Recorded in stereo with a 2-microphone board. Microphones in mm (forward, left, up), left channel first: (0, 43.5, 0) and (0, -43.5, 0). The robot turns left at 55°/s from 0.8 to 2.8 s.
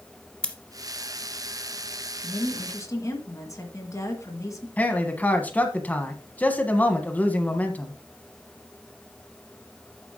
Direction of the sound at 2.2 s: 135° left.